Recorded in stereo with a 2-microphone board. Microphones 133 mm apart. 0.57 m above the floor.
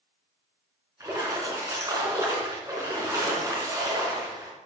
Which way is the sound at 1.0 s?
25° right (ahead or behind).